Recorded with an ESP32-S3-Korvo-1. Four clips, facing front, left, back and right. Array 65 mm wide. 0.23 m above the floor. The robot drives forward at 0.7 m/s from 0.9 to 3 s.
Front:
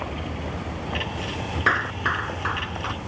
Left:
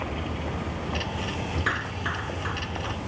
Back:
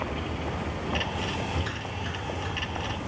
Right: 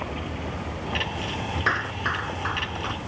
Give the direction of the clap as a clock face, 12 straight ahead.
12 o'clock.